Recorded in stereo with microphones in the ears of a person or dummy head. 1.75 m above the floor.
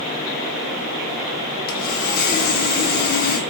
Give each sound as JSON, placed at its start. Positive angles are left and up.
{"t": 1.7, "sound": "sawing", "side_deg": 55, "distance_m": 0.8}